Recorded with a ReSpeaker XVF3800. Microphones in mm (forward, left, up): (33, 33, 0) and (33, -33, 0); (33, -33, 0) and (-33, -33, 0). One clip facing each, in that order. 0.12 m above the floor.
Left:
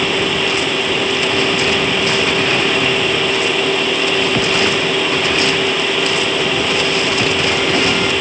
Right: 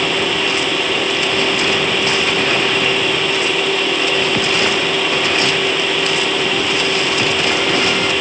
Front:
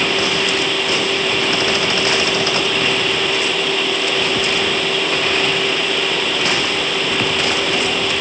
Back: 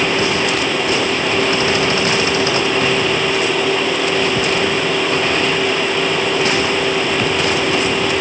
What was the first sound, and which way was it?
Only background noise.